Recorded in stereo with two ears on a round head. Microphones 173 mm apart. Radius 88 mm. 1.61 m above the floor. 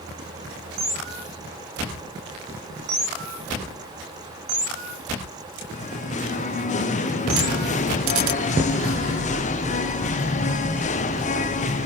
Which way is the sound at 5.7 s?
40° left (ahead or behind).